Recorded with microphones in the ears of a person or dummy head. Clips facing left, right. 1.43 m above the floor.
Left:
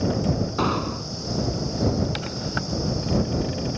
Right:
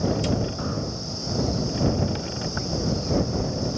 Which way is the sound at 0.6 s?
85° left.